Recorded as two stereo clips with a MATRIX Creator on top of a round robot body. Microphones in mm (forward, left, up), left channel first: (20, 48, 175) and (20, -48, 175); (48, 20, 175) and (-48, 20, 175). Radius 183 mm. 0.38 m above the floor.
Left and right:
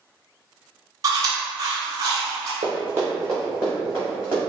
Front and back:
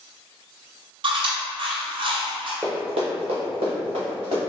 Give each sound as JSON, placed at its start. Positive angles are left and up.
{"t": 1.0, "sound": "chewing", "azimuth_deg": -145, "distance_m": 0.5}
{"t": 2.6, "sound": "running footsteps", "azimuth_deg": -105, "distance_m": 0.7}